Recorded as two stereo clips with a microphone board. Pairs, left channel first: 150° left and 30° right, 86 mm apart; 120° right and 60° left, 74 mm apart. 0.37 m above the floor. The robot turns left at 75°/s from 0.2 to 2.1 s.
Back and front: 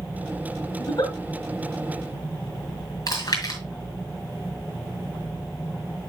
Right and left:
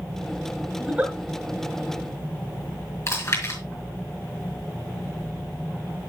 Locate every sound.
0.8 s a giggle: 140° left, 1.7 m; by 1.1 s 115° left, 1.7 m
3.1 s chewing: 170° right, 4 m